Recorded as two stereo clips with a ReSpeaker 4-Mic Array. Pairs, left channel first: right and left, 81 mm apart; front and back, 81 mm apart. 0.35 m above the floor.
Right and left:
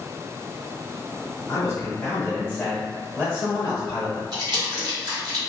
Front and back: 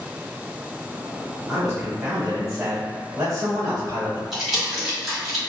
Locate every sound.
1.5 s a man speaking: 100° right, 1.0 m; by 4.2 s 135° left, 1.3 m
4.3 s crumpling: 90° left, 1.3 m